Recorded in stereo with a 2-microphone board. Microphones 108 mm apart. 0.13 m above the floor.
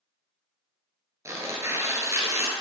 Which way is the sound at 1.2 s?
30° right (ahead or behind).